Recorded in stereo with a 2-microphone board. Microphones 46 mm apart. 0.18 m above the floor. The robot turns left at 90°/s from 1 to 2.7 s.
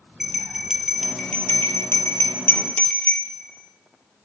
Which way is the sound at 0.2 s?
5° right (ahead or behind).